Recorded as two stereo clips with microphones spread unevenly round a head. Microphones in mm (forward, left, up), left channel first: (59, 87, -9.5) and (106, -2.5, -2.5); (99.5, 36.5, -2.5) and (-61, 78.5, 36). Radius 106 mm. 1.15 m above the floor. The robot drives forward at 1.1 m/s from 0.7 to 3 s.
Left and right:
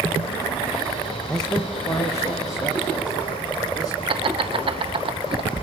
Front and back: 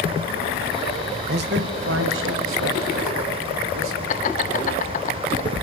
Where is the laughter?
35° right, 1.1 m.